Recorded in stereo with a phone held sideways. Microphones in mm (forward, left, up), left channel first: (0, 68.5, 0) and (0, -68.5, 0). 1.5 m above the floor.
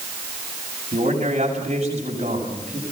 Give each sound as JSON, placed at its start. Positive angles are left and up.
{"t": 0.9, "sound": "a man speaking", "side_deg": -50, "distance_m": 7.0}